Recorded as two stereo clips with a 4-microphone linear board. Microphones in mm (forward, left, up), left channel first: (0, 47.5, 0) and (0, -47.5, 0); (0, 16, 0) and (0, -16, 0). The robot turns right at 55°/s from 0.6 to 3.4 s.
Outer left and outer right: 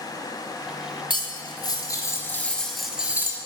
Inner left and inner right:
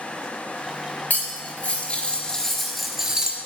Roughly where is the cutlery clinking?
Left.